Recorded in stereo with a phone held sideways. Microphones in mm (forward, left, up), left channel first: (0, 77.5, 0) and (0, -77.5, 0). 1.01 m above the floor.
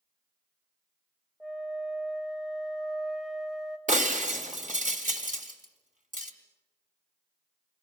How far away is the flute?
About 1.4 m.